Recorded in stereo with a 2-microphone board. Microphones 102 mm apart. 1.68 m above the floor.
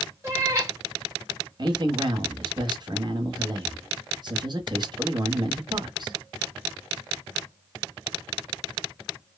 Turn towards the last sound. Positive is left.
turn(degrees=-45)  # may be behind; listen again after turning